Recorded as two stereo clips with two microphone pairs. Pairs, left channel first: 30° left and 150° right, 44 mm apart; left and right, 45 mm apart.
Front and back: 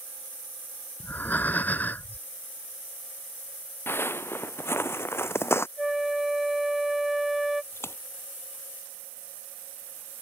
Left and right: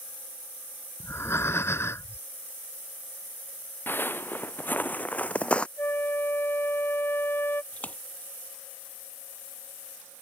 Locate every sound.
1.0 s breathing: 75° left
3.9 s footsteps: 55° left; by 5.7 s 30° left
5.8 s a flute: 125° left
7.7 s a splash: 35° left